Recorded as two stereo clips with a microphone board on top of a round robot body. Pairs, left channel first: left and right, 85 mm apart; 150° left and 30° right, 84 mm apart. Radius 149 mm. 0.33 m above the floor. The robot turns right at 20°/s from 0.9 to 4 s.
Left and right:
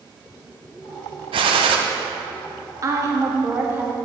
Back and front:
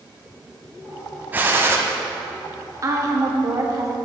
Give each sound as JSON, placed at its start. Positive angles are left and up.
{"t": 1.3, "sound": "a gunshot", "azimuth_deg": -100, "distance_m": 0.6}
{"t": 2.8, "sound": "a woman speaking", "azimuth_deg": -60, "distance_m": 1.6}